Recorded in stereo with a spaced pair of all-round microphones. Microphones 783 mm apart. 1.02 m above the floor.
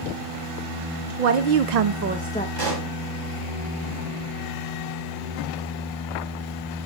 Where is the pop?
80° right, 4 m.